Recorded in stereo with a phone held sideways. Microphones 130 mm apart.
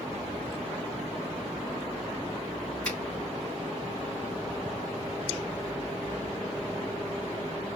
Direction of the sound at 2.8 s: 5° left (ahead or behind).